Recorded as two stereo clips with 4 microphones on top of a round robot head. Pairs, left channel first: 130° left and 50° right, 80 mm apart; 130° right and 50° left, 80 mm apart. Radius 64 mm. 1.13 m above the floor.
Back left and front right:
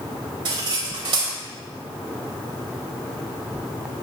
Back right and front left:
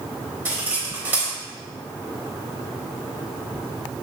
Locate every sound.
0.5 s cutlery clinking: 20° right, 3.5 m